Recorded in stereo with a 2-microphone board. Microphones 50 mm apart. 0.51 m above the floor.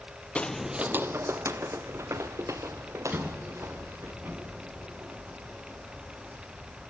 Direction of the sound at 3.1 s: 40° right (ahead or behind).